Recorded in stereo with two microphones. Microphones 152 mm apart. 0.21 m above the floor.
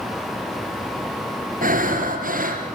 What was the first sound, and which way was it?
Breathing, 65° right (ahead or behind).